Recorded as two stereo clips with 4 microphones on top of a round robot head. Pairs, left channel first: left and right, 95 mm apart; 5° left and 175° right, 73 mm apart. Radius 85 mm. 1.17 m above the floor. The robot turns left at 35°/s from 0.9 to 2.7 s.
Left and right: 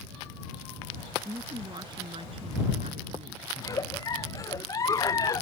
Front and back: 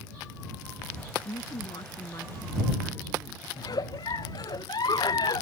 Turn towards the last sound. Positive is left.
turn(degrees=35)